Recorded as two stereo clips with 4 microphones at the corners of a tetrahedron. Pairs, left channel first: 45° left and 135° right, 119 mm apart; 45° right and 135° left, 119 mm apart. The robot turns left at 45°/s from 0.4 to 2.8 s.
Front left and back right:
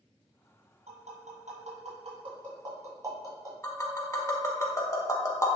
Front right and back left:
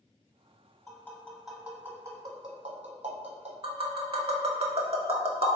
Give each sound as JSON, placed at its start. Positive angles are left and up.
{"t": 0.9, "sound": "tapping", "azimuth_deg": -110, "distance_m": 1.1}
{"t": 3.6, "sound": "tapping", "azimuth_deg": 110, "distance_m": 0.5}